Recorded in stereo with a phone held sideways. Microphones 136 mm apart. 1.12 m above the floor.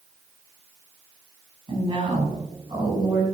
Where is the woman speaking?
40° right (ahead or behind), 5 m; by 3.2 s 30° right (ahead or behind), 6.5 m.